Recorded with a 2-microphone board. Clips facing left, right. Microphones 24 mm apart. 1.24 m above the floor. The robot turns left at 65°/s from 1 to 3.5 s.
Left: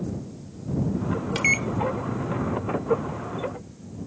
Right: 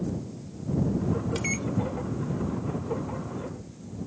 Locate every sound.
1.4 s a microwave: 25° left (ahead or behind); by 1.7 s 45° left (ahead or behind)